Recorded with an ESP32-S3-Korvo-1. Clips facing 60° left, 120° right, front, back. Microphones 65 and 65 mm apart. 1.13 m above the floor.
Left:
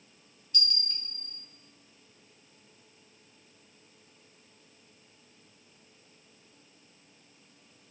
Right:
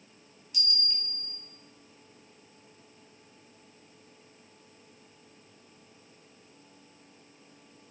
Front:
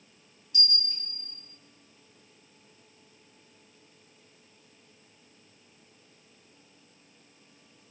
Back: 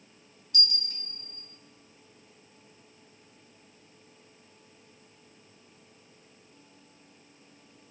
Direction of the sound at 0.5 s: 160° left.